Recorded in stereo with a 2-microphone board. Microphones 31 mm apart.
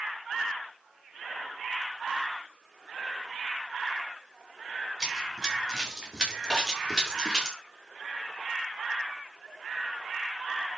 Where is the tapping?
20° left (ahead or behind), 7.5 m.